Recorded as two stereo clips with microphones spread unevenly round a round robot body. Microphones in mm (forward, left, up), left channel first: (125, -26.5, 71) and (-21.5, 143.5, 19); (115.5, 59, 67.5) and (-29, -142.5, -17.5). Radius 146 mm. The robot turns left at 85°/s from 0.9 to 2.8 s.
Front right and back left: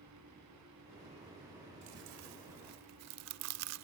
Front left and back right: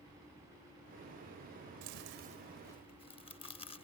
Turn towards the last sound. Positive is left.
turn(degrees=120)